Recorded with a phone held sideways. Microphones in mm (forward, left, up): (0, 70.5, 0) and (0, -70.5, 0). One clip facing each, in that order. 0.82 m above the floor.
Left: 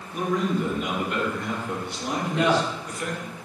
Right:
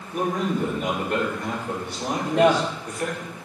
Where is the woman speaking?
50° right (ahead or behind), 3 m.